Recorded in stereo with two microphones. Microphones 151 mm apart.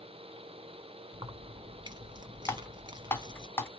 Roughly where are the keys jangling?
Right.